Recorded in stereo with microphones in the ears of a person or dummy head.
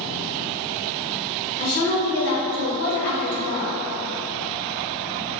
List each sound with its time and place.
1.6 s a woman speaking: 55° left (ahead or behind), 0.9 m